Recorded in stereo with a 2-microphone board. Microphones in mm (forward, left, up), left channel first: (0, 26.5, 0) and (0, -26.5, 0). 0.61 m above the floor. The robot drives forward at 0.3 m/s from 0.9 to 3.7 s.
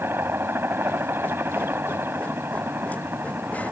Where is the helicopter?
45° right (ahead or behind).